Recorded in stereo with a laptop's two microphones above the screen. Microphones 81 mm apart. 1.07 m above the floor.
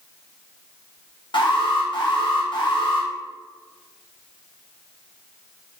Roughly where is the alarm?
Left.